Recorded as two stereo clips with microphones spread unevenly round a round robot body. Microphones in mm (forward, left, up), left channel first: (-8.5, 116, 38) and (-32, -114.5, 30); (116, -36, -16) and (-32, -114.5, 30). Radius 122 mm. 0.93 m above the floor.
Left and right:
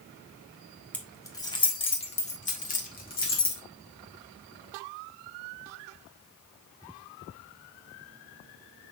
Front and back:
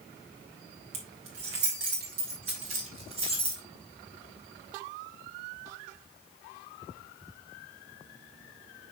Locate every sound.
0.9 s keys jangling: 170° left, 1.3 m; by 3.6 s 135° left, 2.5 m